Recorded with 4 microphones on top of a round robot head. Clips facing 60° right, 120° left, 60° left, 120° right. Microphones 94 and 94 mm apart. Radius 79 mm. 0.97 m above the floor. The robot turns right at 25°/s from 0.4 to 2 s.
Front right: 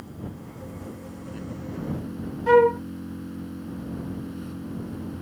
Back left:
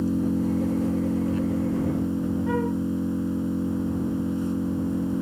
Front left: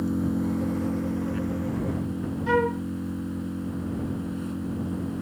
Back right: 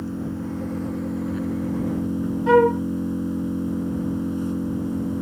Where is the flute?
80° right.